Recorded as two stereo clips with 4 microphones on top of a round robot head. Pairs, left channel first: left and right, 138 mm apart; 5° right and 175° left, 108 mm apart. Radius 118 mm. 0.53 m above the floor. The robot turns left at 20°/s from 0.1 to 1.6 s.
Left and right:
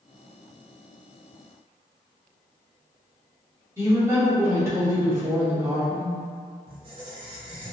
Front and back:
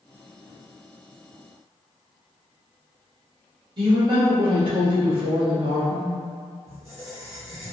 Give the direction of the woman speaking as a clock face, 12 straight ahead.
5 o'clock.